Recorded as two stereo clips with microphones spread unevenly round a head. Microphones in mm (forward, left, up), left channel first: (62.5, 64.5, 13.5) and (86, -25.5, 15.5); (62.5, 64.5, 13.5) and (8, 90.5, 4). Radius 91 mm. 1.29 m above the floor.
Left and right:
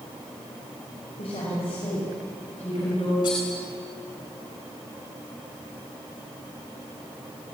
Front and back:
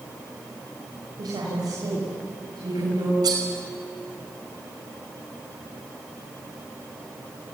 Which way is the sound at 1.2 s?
155° left.